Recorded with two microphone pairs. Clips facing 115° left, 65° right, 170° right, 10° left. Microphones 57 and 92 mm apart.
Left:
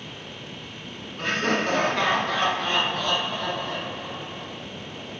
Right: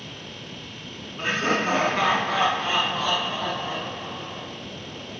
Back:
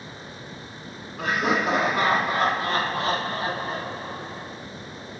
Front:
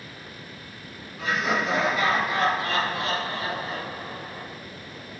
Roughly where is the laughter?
Behind right.